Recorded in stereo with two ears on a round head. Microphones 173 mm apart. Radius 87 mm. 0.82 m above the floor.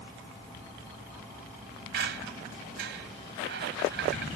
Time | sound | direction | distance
1.9 | a squeak | 60° right (ahead or behind) | ?